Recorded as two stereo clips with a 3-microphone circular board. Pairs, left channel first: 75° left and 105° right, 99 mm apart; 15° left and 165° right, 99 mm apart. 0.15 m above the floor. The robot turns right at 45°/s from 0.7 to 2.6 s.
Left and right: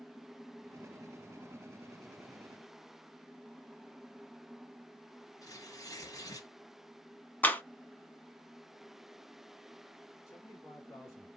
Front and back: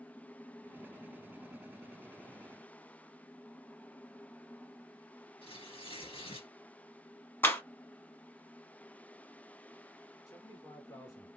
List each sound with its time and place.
5.4 s tearing paper: 25° left, 1.8 m
7.4 s a clap: 35° left, 0.9 m
10.3 s a man speaking: 40° left, 2 m